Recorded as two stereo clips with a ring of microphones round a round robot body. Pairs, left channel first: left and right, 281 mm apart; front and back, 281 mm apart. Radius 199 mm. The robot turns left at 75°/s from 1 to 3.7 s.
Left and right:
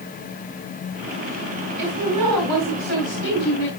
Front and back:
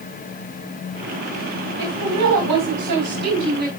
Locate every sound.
1.8 s a woman speaking: 95° right, 2.5 m; by 3.7 s 120° left, 2.5 m